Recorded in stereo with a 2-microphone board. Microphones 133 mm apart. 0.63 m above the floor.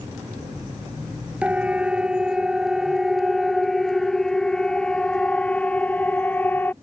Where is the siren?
10° right (ahead or behind); by 6.7 s 15° left (ahead or behind).